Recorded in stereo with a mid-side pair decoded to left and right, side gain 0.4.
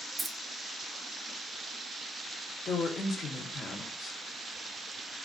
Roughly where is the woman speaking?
Ahead left.